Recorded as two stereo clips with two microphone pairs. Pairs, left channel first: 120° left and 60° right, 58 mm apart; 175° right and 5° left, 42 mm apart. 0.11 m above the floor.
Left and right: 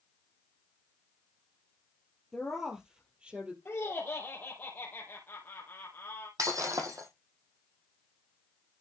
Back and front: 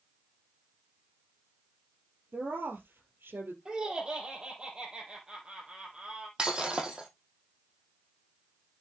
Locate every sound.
2.3 s a woman speaking: 25° left, 2.5 m; by 3.5 s 5° left, 2.5 m
3.6 s laughter: 70° left, 3 m
6.4 s breaking glass: 60° right, 2.5 m